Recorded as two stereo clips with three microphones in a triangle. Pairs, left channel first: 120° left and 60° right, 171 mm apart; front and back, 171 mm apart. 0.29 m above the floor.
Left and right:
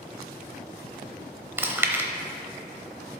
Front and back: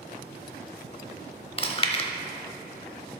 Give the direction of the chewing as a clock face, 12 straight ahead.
12 o'clock.